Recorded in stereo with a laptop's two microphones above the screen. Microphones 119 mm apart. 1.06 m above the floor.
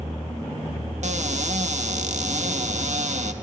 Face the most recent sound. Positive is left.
turn(degrees=-65)  # may be behind; listen again after turning